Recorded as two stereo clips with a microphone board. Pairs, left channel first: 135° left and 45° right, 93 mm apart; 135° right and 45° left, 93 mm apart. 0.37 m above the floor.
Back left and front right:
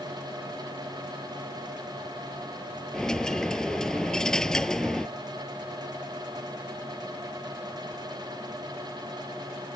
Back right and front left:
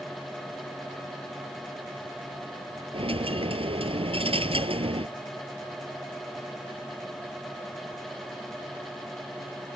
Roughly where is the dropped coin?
Ahead left.